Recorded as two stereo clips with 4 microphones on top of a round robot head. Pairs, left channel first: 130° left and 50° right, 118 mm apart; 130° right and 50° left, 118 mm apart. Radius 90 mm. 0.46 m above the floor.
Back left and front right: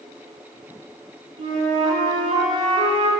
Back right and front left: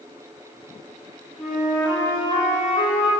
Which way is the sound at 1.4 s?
25° right.